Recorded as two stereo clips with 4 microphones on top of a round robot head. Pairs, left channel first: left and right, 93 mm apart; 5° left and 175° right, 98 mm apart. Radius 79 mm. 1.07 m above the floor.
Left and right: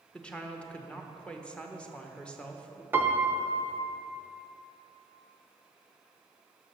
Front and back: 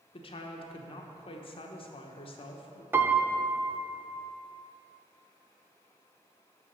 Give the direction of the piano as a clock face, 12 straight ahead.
4 o'clock.